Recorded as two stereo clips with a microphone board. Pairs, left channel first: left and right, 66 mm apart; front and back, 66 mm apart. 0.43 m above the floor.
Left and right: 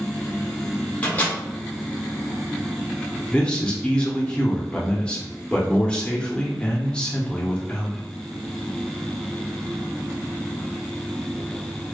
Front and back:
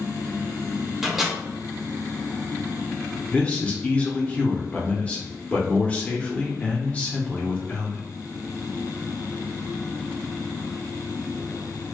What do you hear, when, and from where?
1.0 s a microwave: 100° left, 1.0 m
3.3 s a man speaking: 35° left, 0.8 m